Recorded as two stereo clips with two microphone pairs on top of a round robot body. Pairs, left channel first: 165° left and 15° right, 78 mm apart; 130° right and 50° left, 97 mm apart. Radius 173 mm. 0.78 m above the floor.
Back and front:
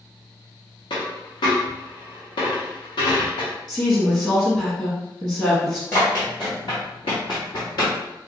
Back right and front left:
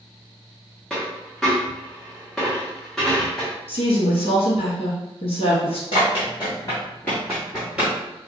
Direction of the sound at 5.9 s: 135° right.